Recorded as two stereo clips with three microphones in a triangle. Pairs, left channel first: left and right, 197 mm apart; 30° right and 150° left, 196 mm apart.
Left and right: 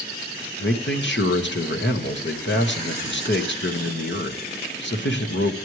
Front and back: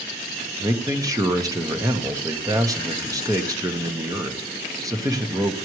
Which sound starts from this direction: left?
A man speaking, at 0.6 s.